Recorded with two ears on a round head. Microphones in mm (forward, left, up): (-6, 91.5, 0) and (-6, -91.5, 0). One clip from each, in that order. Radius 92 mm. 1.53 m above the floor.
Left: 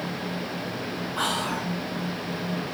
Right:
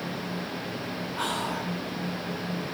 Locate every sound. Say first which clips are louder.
1.2 s whispering: left 3 dB; 45° left (ahead or behind), 2 m